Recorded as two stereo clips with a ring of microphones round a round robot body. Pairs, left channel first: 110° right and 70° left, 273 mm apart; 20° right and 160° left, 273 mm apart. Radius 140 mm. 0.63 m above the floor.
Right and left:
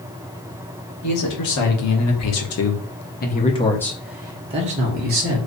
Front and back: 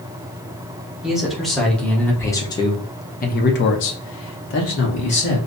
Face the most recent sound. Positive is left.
turn(degrees=20)